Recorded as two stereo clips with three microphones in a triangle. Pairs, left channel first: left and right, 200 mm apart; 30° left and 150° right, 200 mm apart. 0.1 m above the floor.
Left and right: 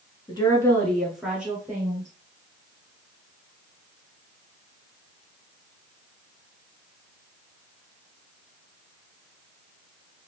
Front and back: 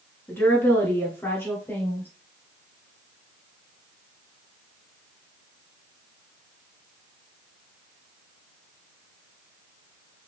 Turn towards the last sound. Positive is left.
turn(degrees=-40)